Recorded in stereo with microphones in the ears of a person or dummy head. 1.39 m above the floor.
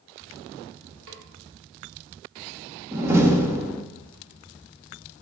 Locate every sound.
1.1 s a snare drum: 70° right (ahead or behind), 2.5 m
2.9 s a door slam: 15° right (ahead or behind), 1.6 m